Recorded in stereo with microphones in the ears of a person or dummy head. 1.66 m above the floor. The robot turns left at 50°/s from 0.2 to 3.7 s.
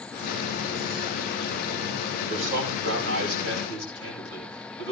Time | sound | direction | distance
2.3 | a man speaking | 40° right | 9.5 m